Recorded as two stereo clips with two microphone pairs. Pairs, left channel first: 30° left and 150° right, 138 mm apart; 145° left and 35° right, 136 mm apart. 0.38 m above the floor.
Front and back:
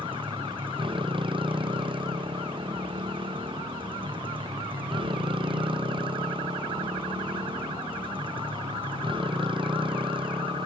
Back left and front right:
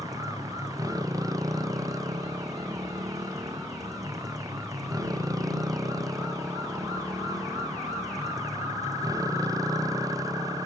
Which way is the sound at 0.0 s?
100° right.